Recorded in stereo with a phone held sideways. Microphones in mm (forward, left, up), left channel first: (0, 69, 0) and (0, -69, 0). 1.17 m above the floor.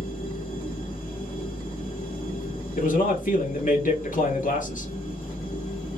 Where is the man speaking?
70° left (ahead or behind), 2 m.